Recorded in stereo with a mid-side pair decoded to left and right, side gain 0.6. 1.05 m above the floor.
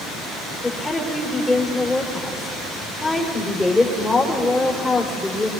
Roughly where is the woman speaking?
Ahead.